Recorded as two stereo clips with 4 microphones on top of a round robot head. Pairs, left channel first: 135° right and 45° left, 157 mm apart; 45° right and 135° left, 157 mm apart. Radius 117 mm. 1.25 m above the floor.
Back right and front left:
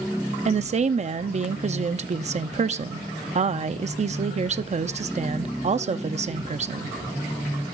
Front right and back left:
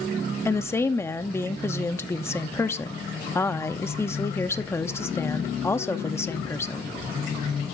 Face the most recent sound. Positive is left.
turn(degrees=25)